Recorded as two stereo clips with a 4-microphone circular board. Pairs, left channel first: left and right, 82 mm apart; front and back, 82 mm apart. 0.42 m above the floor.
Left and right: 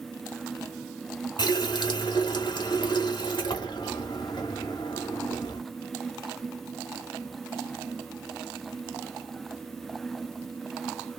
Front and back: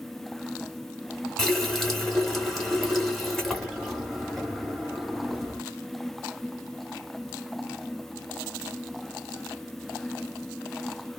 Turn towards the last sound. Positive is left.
turn(degrees=85)